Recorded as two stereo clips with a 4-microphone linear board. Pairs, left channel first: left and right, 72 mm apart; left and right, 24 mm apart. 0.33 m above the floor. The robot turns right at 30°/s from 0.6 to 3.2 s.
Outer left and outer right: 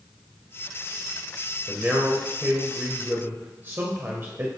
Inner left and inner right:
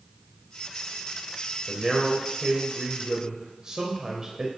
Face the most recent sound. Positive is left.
turn(degrees=-90)